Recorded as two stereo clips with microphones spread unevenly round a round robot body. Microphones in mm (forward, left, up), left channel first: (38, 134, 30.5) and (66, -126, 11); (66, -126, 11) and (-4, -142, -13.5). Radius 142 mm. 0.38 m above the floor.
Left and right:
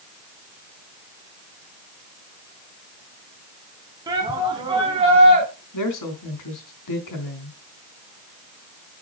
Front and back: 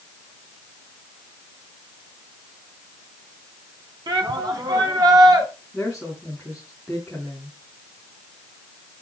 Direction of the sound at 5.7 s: 105° left.